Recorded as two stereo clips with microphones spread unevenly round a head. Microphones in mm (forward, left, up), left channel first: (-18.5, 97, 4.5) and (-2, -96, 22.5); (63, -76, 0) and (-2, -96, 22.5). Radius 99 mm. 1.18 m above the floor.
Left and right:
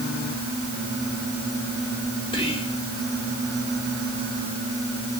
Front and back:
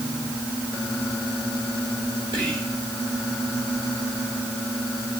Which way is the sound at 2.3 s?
160° left.